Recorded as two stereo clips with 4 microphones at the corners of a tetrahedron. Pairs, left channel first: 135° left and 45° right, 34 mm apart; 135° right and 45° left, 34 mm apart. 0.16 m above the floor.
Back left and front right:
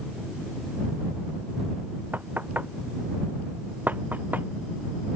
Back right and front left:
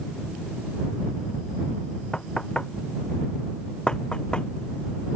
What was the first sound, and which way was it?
Knocking, 75° right.